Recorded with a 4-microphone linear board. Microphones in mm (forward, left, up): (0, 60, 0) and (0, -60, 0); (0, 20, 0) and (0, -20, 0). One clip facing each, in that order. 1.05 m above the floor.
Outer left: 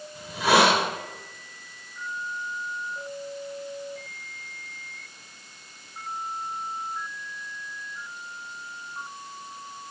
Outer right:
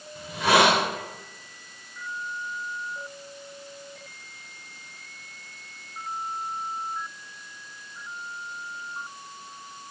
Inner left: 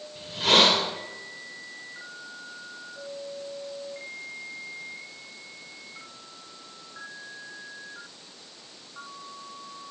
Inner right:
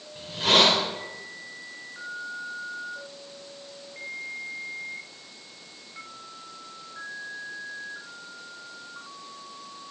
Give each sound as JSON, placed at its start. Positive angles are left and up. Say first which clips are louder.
{"t": 0.1, "sound": "a hiss", "louder": "even, even", "side_deg": 5, "distance_m": 3.5}